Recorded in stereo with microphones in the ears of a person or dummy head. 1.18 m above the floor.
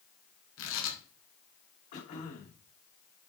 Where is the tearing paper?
75° left (ahead or behind), 1.9 m.